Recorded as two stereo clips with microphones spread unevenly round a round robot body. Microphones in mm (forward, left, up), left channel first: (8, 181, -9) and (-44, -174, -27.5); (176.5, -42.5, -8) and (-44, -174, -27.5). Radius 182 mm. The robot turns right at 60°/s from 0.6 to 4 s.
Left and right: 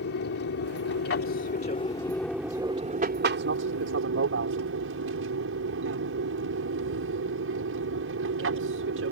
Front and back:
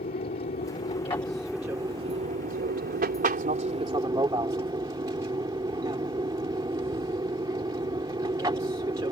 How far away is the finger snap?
No finger snap in this recording.